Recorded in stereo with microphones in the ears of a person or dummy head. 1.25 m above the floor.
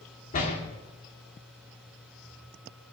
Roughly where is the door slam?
Left.